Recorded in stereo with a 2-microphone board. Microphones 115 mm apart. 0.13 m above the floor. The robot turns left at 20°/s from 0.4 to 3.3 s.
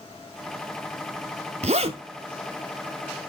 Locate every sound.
1.6 s a zipper: 75° right (ahead or behind), 0.6 m